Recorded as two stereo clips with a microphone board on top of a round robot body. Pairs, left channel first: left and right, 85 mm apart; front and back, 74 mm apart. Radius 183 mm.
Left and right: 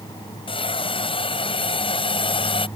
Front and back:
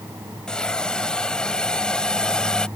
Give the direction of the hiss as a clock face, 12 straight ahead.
9 o'clock.